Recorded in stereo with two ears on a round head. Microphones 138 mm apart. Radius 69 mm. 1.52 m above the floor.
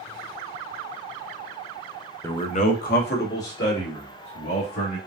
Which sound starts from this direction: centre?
A man speaking, at 2.2 s.